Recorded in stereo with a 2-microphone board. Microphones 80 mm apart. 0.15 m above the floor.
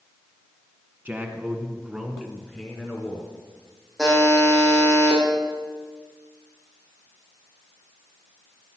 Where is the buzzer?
5° right (ahead or behind), 5 m.